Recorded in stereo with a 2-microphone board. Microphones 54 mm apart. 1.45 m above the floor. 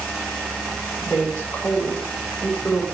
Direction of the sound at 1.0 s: 25° left (ahead or behind).